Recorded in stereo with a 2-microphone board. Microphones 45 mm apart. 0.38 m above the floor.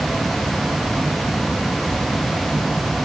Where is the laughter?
No laughter in this recording.